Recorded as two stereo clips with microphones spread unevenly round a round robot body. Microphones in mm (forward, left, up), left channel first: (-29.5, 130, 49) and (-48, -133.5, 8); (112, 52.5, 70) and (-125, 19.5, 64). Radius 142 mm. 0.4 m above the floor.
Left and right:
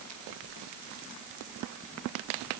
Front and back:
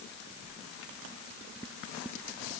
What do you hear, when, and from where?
Only background noise.